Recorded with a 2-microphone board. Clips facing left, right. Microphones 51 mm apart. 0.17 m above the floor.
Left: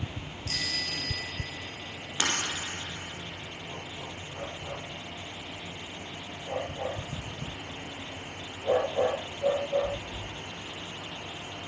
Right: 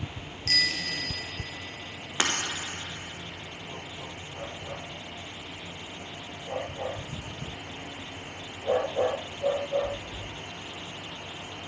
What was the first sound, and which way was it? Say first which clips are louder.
A bicycle bell: right 6 dB; 70° right (ahead or behind).